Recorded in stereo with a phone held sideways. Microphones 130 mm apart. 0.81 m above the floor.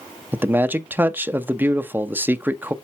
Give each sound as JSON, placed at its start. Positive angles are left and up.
{"t": 0.3, "sound": "a man speaking", "side_deg": -15, "distance_m": 0.5}